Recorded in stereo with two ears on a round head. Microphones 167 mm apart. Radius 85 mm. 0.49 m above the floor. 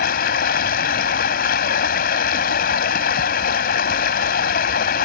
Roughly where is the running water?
Left.